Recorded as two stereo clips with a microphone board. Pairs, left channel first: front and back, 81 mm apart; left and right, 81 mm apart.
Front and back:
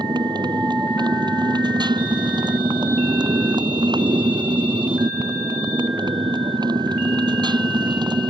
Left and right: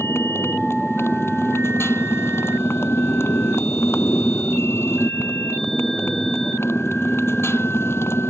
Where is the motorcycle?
150° left.